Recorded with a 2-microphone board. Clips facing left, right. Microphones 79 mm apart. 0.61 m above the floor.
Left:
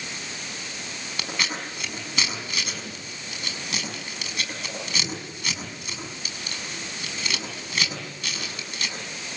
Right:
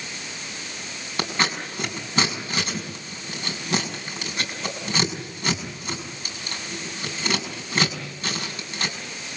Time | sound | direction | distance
1.2 | scissors | 35° right (ahead or behind) | 6 m